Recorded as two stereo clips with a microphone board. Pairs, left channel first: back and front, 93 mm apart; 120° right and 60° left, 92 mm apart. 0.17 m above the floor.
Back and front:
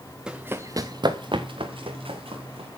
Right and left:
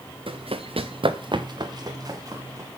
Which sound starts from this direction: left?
Running footsteps, at 0.3 s.